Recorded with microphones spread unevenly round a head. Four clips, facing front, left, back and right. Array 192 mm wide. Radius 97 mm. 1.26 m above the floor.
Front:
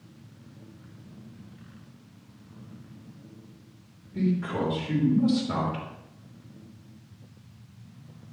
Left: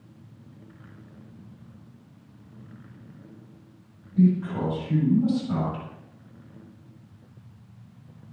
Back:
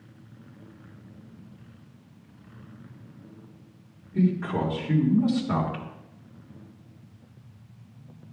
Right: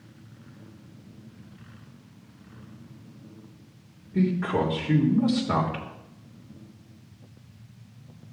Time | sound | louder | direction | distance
4.1 | a man speaking | left 2 dB, back 2 dB | 100° right | 3.5 m